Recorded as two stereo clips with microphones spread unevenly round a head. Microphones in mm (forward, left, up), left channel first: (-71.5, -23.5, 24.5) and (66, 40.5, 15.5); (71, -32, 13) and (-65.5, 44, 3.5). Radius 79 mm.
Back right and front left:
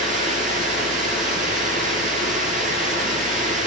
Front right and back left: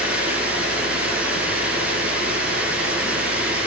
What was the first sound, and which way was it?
Running water, 70° left.